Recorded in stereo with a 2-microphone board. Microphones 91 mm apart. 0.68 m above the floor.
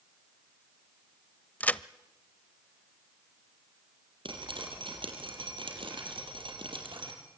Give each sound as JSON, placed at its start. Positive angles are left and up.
{"t": 1.6, "sound": "a crack", "side_deg": 15, "distance_m": 0.5}
{"t": 4.2, "sound": "dripping", "side_deg": -65, "distance_m": 4.5}